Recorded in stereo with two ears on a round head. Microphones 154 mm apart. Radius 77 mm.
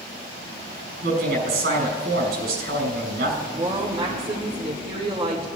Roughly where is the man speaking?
Right.